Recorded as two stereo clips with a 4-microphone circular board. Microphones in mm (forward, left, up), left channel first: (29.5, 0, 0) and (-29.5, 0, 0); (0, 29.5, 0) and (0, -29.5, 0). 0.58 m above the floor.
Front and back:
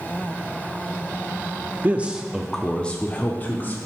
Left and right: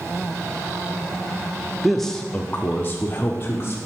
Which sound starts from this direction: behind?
A man speaking, at 1.8 s.